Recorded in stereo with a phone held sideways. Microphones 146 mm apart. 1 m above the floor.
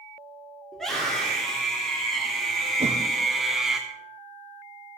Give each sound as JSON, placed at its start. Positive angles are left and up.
{"t": 0.7, "sound": "a scream", "side_deg": 5, "distance_m": 3.0}
{"t": 2.8, "sound": "a whoosh", "side_deg": -45, "distance_m": 0.9}